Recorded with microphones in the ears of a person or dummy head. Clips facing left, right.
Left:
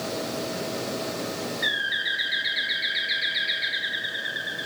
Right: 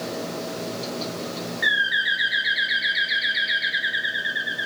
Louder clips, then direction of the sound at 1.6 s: Right 3 dB; 10° right (ahead or behind).